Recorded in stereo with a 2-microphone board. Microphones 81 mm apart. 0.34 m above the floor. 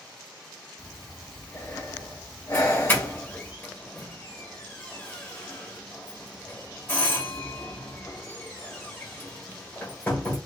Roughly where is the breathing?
Left.